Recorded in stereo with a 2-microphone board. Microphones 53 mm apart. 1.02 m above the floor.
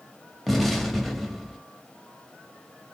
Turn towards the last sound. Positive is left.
turn(degrees=0)  # may be behind; listen again after turning